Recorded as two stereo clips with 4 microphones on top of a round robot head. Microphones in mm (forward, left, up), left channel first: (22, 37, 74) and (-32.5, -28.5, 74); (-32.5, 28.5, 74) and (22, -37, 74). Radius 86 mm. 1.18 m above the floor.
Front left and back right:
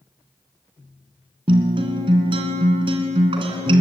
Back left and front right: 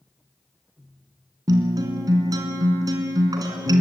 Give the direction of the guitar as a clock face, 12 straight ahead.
3 o'clock.